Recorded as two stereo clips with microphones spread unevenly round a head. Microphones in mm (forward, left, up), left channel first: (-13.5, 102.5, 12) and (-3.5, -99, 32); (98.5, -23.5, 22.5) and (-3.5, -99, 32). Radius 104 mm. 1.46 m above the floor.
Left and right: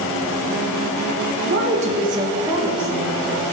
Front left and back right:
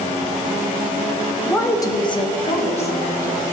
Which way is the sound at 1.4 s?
45° right.